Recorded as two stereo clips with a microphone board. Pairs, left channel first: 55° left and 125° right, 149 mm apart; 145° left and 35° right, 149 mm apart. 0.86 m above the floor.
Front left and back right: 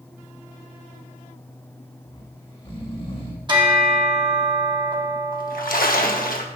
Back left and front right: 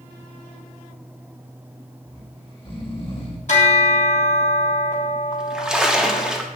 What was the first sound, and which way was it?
Snoring, 100° left.